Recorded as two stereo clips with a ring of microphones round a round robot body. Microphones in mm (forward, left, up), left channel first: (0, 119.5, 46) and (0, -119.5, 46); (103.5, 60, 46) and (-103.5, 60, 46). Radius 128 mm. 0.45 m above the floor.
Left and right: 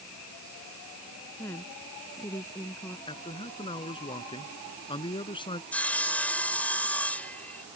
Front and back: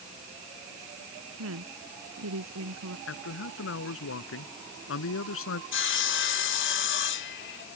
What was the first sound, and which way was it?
A woman speaking, 170° left.